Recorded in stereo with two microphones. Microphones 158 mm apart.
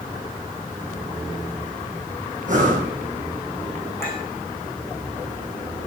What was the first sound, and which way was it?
Breathing, 55° right (ahead or behind).